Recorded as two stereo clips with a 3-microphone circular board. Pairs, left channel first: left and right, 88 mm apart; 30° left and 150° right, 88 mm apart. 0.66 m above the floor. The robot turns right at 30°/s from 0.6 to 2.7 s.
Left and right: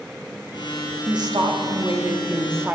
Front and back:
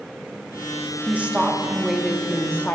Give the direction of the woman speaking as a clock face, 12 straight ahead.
3 o'clock.